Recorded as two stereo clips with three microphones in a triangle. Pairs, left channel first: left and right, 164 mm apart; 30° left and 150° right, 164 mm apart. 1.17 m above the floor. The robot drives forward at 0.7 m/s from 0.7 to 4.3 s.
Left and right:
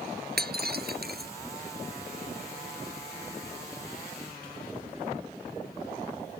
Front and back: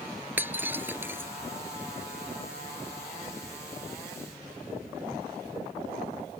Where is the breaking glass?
70° right; by 1.3 s 75° right.